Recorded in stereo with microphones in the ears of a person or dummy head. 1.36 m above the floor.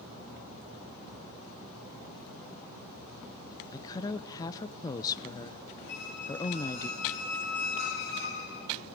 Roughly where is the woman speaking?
Centre.